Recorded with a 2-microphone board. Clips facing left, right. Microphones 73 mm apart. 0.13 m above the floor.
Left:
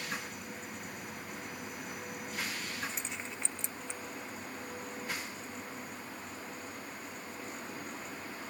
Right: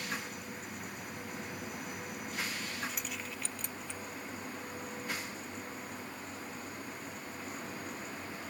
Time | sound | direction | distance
2.9 | keys jangling | 30° left (ahead or behind) | ?